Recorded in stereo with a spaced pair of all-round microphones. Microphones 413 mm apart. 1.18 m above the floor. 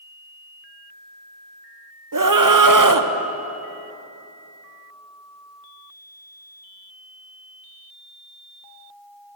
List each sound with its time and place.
2.1 s a scream: 55° right (ahead or behind), 0.8 m